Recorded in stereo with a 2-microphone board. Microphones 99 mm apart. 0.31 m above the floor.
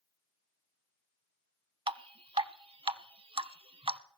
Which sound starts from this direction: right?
Dripping, at 1.9 s.